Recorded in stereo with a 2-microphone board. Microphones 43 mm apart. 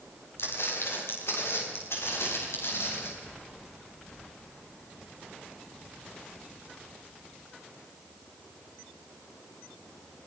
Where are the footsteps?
70° left (ahead or behind), 8 m.